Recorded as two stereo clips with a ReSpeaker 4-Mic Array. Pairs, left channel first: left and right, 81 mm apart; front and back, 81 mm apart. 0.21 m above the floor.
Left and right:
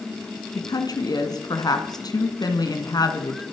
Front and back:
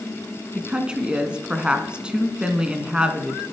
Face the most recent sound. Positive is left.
turn(degrees=105)